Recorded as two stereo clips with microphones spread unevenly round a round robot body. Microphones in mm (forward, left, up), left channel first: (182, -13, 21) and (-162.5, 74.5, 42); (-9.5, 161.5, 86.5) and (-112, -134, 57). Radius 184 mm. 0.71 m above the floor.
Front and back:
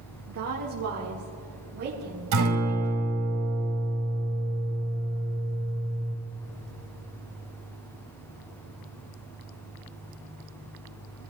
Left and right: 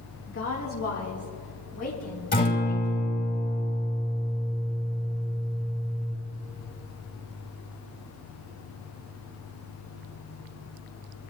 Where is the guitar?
135° left, 5 m.